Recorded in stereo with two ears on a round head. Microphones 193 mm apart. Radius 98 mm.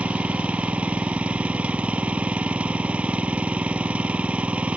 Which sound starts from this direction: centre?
An engine running, at 0.0 s.